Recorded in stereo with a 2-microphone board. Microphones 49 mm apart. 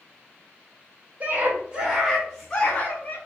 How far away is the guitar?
I don't hear a guitar.